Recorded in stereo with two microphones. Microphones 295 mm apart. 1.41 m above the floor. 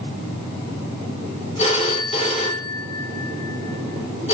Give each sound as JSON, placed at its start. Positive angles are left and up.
{"t": 1.6, "sound": "a phone ringing", "side_deg": 20, "distance_m": 2.5}